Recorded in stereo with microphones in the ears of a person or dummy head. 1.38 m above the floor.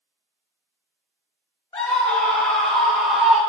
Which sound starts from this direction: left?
A scream, at 1.7 s.